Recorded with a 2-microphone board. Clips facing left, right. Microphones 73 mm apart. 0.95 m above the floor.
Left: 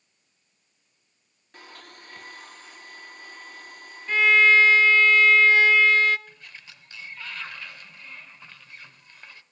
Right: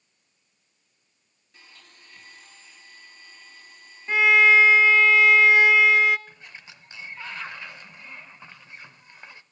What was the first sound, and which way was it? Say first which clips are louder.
A blender: left 8 dB; 65° left (ahead or behind).